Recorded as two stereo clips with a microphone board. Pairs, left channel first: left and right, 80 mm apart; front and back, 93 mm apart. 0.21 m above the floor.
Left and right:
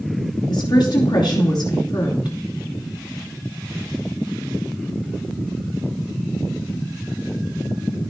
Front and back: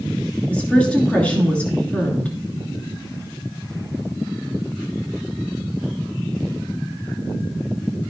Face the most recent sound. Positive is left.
turn(degrees=75)